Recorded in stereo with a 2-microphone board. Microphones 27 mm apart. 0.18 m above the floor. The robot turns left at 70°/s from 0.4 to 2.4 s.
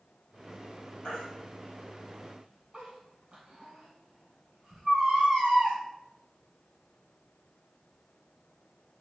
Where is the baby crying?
40° left (ahead or behind), 4 m; by 5.8 s 50° right (ahead or behind), 4 m.